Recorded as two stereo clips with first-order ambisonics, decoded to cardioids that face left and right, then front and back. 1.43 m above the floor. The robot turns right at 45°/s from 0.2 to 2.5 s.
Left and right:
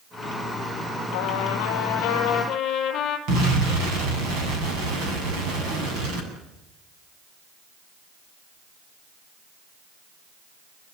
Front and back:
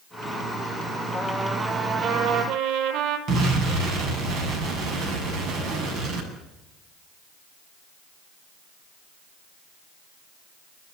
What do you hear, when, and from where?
1.1 s a trumpet: 80° left, 5 m; by 3.2 s 140° left, 5 m
3.3 s an explosion: 130° right, 8.5 m